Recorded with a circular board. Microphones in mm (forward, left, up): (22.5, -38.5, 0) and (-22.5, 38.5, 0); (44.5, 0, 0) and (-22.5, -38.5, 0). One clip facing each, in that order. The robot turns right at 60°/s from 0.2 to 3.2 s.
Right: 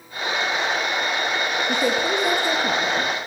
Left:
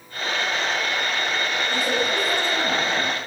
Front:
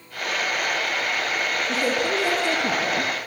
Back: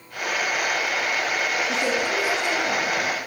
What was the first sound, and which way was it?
A woman speaking, 65° right.